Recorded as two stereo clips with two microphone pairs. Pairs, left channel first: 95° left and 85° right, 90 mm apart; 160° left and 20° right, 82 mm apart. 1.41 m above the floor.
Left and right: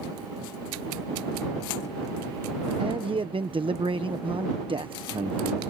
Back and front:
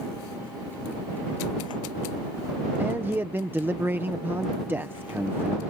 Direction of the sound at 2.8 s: 80° right.